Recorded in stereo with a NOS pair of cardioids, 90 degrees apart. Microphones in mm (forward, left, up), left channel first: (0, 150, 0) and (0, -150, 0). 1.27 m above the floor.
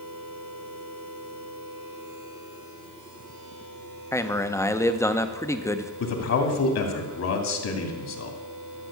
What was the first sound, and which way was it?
A man speaking, 10° left.